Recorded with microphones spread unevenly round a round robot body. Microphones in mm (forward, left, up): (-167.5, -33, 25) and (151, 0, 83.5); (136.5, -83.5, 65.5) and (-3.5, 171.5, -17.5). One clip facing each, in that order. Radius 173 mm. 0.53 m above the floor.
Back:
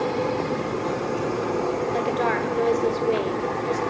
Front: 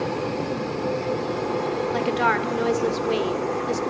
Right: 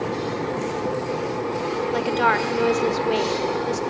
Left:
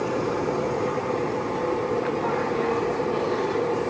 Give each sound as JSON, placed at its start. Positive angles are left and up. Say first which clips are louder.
{"t": 1.9, "sound": "a woman speaking", "louder": "even, right 2 dB", "azimuth_deg": -60, "distance_m": 1.7}